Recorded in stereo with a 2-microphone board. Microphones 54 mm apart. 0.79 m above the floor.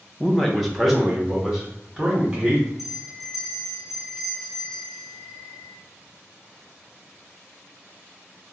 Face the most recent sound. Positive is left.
turn(degrees=-10)  # may be behind; listen again after turning